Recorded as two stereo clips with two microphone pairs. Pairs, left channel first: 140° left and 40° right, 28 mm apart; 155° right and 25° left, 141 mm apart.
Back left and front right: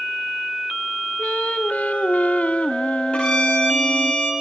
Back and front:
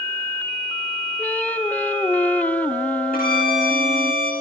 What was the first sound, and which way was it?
Singing, 125° left.